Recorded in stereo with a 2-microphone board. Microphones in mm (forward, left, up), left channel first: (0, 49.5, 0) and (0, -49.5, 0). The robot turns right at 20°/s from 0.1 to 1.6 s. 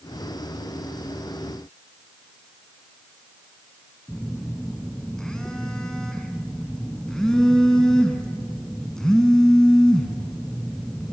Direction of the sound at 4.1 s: 5° left (ahead or behind).